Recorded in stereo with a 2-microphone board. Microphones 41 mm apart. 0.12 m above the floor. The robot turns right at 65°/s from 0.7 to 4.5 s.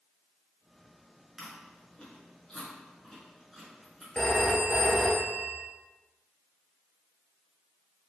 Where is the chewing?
15° left (ahead or behind), 1.4 m; by 4.0 s 15° right (ahead or behind), 1.4 m.